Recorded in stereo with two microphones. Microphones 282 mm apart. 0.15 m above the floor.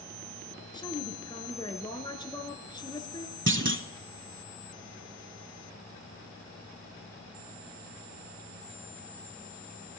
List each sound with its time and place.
0.7 s a woman speaking: 15° left (ahead or behind), 1.6 m
3.5 s a clunk: 45° right (ahead or behind), 0.5 m